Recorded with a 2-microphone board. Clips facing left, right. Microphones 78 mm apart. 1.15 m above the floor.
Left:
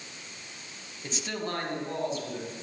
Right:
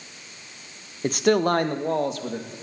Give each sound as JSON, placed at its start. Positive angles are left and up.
{"t": 1.0, "sound": "a man speaking", "side_deg": -50, "distance_m": 0.8}